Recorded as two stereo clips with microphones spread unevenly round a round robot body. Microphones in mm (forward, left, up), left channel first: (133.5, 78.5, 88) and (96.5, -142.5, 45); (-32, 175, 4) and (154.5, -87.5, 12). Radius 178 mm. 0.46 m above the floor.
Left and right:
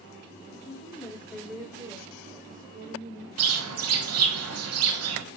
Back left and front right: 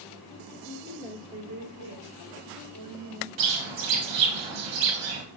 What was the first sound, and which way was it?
A woman speaking, 10° left.